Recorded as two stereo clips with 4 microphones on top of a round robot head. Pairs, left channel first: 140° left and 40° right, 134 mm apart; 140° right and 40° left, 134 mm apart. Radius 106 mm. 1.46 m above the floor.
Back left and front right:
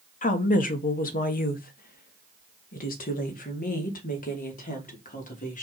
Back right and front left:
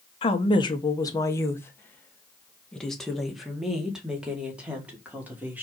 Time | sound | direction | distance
0.2 | a woman speaking | 170° left | 1.5 m